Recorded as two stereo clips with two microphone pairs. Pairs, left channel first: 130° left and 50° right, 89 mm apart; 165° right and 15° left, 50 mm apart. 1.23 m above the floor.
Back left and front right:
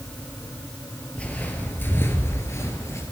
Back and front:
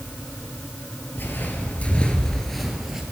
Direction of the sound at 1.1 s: 165° right.